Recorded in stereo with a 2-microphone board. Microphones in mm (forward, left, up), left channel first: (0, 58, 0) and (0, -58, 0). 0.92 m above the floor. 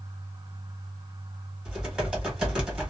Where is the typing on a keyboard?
5° right (ahead or behind), 1.4 m.